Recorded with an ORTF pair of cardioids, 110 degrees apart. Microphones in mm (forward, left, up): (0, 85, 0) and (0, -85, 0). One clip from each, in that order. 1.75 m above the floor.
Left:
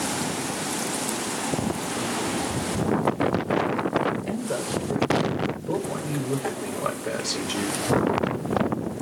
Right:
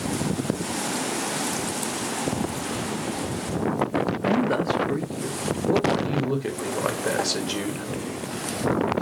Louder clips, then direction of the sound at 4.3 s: Right 6 dB; 30° right.